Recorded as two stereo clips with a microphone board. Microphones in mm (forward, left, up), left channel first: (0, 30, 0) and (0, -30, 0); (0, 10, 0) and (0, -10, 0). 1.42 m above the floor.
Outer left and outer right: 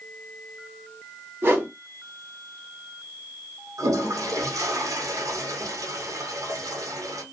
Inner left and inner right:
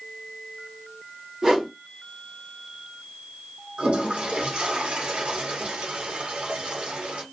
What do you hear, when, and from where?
1.4 s a whoosh: 40° right (ahead or behind), 1.1 m
3.8 s a toilet flushing: 80° right, 0.8 m